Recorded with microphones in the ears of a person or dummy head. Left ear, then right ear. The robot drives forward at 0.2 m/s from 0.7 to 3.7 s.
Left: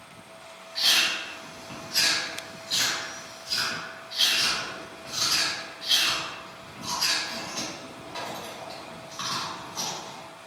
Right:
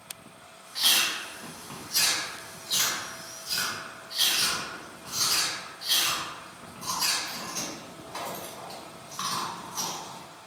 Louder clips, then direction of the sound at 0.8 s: Left 2 dB; 15° right (ahead or behind).